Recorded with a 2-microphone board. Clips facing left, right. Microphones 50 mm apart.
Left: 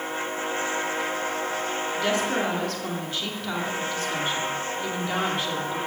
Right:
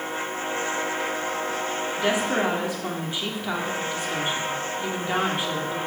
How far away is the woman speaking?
About 1.9 m.